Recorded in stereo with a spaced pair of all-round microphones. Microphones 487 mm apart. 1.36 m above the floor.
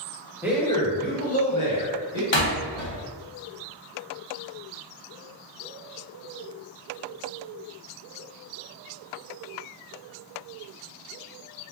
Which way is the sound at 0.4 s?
5° right (ahead or behind).